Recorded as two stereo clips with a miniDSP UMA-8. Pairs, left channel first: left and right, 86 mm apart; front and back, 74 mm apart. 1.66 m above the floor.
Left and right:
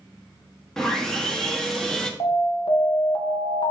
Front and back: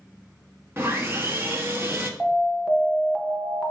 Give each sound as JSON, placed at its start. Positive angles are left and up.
{"t": 0.8, "sound": "sawing", "azimuth_deg": 170, "distance_m": 1.2}
{"t": 2.2, "sound": "an alarm", "azimuth_deg": 95, "distance_m": 1.3}